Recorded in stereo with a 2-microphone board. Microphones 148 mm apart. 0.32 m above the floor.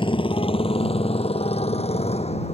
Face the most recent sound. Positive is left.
turn(degrees=40)  # may be behind; listen again after turning